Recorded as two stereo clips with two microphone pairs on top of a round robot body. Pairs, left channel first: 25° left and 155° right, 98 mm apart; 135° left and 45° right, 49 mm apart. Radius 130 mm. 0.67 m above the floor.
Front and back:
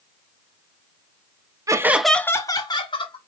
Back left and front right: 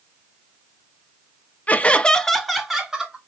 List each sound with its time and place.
1.7 s laughter: 160° left, 0.9 m; by 3.2 s 40° left, 1.7 m